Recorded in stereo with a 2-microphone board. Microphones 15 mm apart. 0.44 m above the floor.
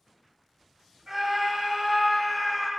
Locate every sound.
1.1 s a scream: 30° right (ahead or behind), 2 m; by 2.7 s 10° left (ahead or behind), 1.7 m